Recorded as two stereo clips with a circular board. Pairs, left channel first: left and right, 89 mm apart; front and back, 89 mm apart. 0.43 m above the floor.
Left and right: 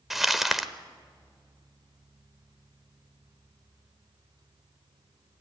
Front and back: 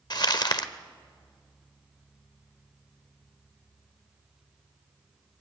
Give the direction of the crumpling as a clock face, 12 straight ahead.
12 o'clock.